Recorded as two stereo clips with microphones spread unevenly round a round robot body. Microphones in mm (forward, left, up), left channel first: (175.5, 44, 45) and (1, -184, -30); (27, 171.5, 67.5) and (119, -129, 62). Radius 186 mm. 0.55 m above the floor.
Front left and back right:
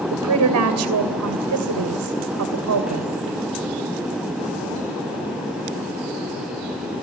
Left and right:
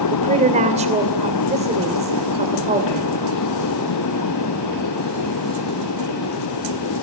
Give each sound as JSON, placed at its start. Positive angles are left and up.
{"t": 0.1, "sound": "a woman speaking", "azimuth_deg": -140, "distance_m": 2.5}